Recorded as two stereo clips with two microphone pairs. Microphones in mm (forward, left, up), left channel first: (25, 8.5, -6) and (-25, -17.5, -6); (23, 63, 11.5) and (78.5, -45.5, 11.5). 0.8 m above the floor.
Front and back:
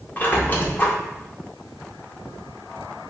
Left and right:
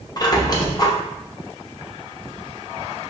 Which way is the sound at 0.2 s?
70° left.